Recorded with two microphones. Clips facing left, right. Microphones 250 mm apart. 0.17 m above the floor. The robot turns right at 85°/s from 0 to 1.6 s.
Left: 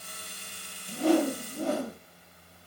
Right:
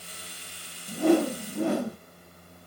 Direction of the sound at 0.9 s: 135° right.